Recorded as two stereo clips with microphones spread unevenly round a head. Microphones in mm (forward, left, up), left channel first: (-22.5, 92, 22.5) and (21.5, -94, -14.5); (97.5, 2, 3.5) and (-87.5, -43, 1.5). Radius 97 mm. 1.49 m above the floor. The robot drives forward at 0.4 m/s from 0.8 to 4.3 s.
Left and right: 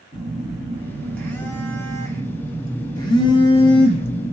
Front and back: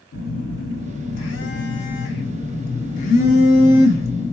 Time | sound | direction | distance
0.1 | a phone buzzing | 25° left | 1.7 m